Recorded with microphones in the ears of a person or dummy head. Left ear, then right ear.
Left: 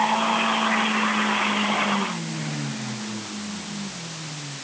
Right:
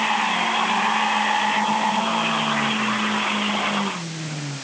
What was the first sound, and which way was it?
Only background noise.